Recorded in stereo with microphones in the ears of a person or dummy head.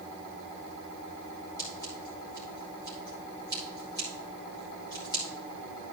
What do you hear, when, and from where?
1.6 s scissors: 15° left (ahead or behind), 4 m